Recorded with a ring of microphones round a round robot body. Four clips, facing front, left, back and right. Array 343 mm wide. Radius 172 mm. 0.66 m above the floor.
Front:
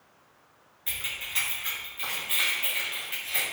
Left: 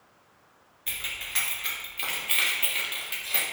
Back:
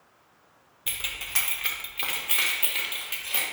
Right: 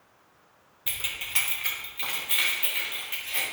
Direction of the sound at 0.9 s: 145° right.